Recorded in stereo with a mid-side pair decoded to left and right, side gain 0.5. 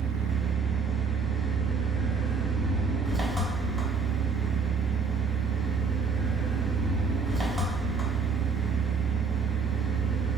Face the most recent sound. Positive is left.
turn(degrees=-15)